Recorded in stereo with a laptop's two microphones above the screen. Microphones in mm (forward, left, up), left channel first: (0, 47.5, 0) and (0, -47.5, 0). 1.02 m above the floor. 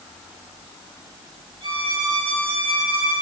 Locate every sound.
1.6 s a violin: 60° right (ahead or behind), 2 m